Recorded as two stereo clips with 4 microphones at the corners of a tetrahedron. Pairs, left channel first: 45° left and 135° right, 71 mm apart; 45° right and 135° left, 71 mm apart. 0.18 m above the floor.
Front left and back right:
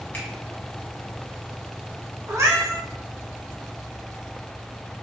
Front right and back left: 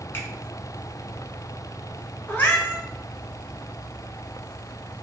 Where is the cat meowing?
100° right, 0.9 m.